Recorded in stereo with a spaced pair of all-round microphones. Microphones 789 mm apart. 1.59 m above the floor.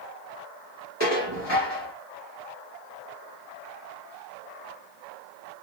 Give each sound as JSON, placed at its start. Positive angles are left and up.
{"t": 1.0, "sound": "dishes clattering", "side_deg": 35, "distance_m": 1.5}